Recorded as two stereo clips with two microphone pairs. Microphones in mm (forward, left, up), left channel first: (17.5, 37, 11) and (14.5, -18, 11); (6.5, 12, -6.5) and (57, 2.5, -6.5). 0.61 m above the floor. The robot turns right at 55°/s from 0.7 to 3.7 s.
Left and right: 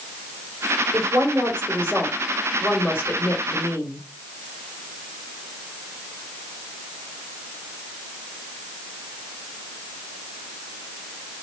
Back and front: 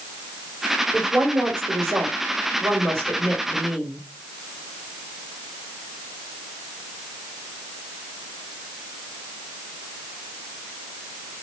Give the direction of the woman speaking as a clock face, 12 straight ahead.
3 o'clock.